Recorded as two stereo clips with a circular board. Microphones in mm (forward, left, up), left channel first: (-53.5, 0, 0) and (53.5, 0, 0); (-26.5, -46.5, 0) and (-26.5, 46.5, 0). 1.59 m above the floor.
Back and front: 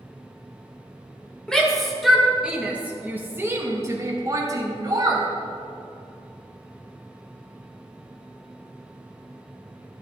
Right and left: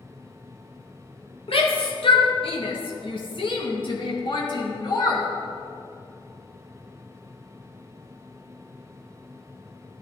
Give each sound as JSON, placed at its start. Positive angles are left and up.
{"t": 1.5, "sound": "a shout", "azimuth_deg": -95, "distance_m": 1.9}